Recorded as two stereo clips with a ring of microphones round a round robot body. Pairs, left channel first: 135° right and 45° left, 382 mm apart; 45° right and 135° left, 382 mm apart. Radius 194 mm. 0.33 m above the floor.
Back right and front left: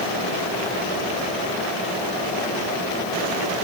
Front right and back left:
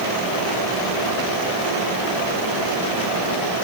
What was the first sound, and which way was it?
Only background noise.